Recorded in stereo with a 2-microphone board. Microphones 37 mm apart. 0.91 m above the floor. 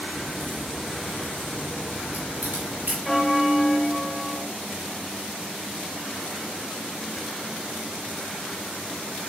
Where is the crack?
65° right (ahead or behind), 5.5 m.